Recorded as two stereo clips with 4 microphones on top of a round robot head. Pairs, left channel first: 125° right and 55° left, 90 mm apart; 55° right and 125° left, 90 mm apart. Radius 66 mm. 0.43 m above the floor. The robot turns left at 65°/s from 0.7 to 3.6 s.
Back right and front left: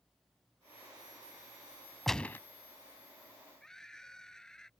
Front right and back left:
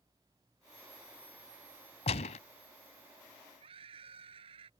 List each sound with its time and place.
2.1 s a gunshot: 35° right; by 2.4 s 55° right
3.6 s a scream: 150° left